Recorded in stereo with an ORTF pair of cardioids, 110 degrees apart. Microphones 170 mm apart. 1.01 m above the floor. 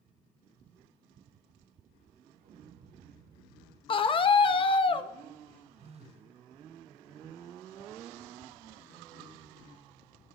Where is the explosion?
60° right, 1.1 m.